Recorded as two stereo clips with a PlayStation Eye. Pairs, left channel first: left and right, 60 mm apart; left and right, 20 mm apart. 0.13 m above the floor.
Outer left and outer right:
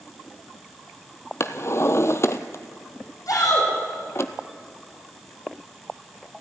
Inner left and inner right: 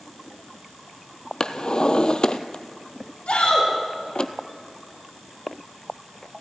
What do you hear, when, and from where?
1.4 s a drawer: 50° left (ahead or behind), 0.9 m
3.3 s a shout: 75° left (ahead or behind), 6.5 m